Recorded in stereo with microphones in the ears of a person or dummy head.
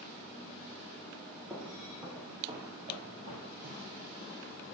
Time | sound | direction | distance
1.5 | footsteps | 10° right (ahead or behind) | 2.5 m